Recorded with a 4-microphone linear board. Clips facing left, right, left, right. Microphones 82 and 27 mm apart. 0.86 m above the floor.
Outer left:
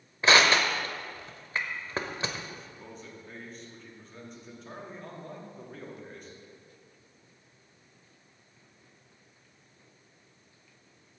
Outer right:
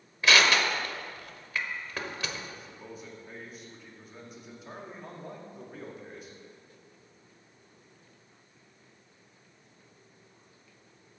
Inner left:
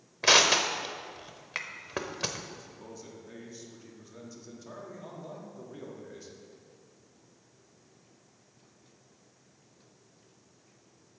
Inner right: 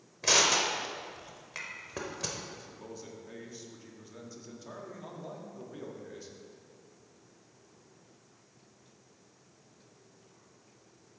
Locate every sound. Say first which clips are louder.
0.2 s crushing: outer left 2 dB, inner left 4 dB; 30° left (ahead or behind), 0.7 m
2.5 s a man speaking: outer right 1 dB, inner right 1 dB; 5° right (ahead or behind), 1.4 m